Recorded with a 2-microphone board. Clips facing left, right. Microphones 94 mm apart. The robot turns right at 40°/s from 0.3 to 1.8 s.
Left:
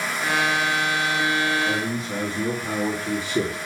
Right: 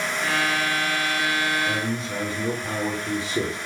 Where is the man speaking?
60° left (ahead or behind), 3 m.